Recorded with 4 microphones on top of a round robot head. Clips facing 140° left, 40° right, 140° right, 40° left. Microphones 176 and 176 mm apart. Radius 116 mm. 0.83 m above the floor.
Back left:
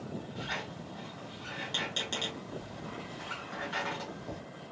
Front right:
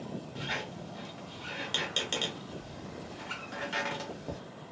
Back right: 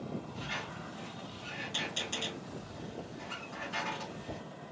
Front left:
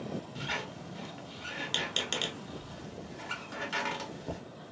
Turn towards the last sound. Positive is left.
turn(degrees=30)